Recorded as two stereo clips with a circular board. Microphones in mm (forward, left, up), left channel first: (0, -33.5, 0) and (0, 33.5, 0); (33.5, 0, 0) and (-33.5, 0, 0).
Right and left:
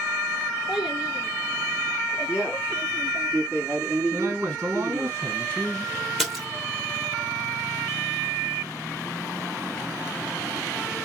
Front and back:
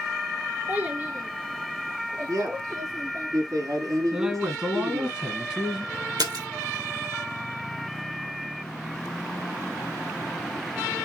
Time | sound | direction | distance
0.7 | a child speaking | 160° left | 0.9 m
2.3 | a man speaking | 160° left | 3 m
4.1 | a man speaking | 115° left | 1.5 m
6.2 | a splash | straight behind | 2 m